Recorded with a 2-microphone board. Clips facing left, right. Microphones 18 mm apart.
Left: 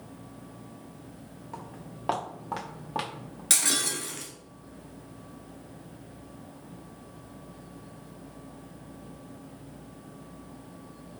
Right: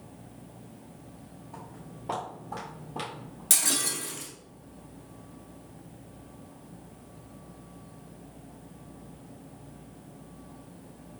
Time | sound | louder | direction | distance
1.5 | footsteps | left 3 dB | 60° left (ahead or behind) | 2 m
3.5 | breaking glass | left 1 dB | 25° left (ahead or behind) | 1.2 m